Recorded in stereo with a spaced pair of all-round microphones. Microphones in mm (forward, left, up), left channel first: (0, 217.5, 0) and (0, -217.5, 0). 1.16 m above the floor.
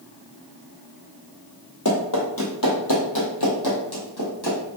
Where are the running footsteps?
40° left (ahead or behind), 1.8 m; by 4.6 s 60° left (ahead or behind), 2.5 m.